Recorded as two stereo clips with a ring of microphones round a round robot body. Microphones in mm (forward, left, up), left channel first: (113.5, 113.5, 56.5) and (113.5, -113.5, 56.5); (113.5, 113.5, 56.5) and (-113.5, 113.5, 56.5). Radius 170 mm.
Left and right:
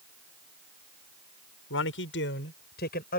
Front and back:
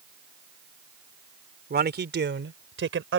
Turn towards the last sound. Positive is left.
turn(degrees=150)